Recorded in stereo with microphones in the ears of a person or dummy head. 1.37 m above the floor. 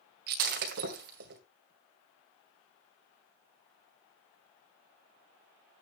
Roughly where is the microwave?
I don't hear a microwave.